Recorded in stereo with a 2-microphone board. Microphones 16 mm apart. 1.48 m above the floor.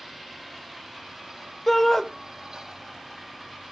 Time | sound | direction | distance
1.7 | a shout | 25° left (ahead or behind) | 1.6 m